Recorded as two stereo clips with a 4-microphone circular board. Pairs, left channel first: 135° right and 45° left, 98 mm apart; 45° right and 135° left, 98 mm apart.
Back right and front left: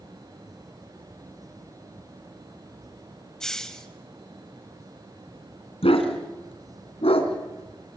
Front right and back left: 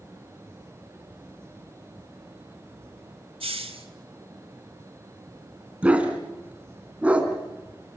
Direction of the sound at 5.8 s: 145° right.